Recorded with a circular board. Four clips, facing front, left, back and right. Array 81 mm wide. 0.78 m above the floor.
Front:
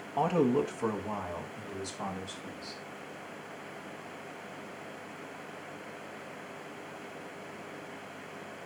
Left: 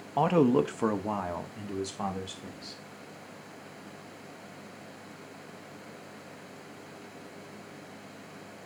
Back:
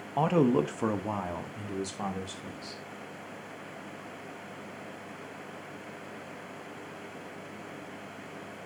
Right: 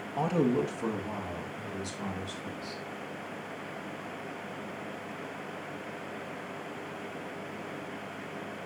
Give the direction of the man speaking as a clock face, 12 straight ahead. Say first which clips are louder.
Left 4 dB, back 2 dB; 8 o'clock.